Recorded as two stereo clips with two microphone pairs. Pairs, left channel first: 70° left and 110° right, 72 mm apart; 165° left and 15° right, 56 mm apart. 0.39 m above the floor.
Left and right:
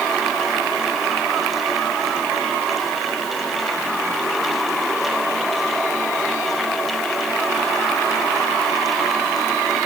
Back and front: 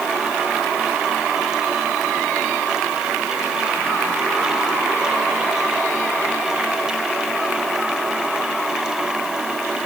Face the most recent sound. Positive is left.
No sound to turn to.